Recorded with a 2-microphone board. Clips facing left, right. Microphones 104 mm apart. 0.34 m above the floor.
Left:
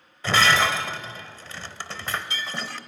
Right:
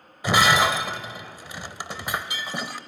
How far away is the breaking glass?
About 0.7 m.